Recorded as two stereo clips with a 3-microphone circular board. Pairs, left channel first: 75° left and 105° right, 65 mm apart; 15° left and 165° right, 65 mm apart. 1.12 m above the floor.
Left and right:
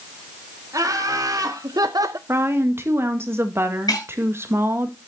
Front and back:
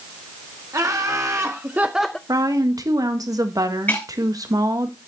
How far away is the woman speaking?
About 1.7 m.